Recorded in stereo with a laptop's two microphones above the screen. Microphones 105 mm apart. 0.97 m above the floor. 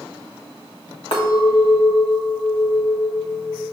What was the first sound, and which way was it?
A clink, 65° left (ahead or behind).